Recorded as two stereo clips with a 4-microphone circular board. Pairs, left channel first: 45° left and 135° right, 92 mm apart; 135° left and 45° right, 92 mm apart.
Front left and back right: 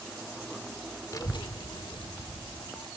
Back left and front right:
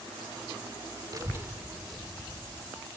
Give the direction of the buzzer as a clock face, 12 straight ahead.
I don't hear a buzzer.